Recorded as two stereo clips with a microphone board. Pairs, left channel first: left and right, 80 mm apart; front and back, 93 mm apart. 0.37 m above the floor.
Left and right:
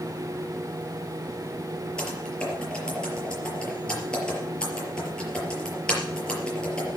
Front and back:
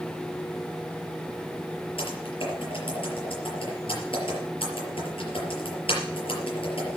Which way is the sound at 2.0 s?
10° left.